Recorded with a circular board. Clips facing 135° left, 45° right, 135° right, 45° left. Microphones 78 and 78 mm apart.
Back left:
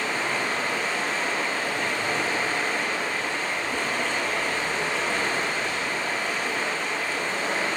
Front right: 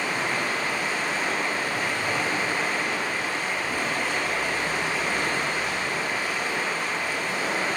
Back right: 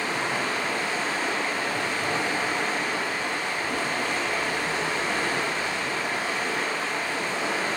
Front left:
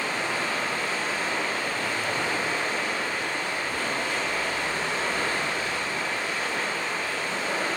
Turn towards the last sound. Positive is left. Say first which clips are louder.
# even, back right 1 dB
turn(degrees=-125)